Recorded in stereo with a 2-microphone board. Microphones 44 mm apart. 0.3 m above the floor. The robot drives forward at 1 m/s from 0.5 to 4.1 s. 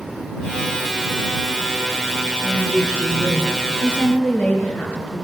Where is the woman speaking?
55° left (ahead or behind), 4.5 m; by 5.2 s 40° left (ahead or behind), 6 m.